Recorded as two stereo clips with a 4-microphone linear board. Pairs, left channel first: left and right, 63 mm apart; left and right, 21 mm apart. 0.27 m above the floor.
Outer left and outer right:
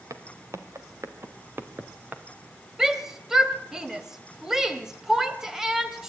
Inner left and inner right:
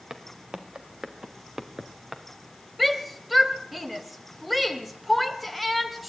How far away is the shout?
About 1.6 m.